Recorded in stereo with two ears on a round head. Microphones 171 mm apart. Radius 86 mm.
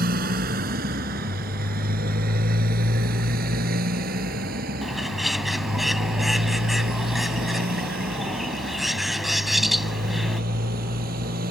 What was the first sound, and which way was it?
A motorcycle, 50° right (ahead or behind).